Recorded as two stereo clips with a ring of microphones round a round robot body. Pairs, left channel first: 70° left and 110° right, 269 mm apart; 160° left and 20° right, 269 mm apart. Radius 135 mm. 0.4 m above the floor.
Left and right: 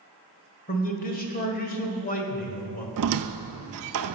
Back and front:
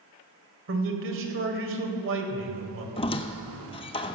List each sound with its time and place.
0.7 s a man speaking: 15° left, 1.7 m
3.0 s a squeak: 135° right, 0.6 m